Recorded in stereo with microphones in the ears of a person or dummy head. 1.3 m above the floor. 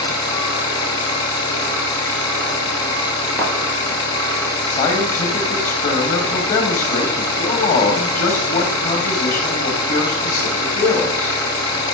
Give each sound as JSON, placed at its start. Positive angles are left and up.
{"t": 0.0, "sound": "an engine running", "side_deg": 20, "distance_m": 3.0}
{"t": 3.4, "sound": "a thud", "side_deg": 0, "distance_m": 4.0}
{"t": 4.7, "sound": "a man speaking", "side_deg": 45, "distance_m": 2.0}